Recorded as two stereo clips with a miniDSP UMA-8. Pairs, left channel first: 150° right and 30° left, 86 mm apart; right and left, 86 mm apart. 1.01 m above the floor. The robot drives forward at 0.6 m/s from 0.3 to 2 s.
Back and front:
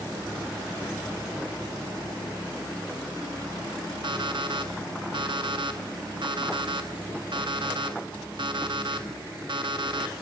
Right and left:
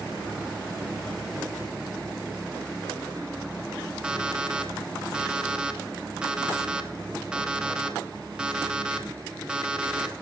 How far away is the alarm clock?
About 0.8 m.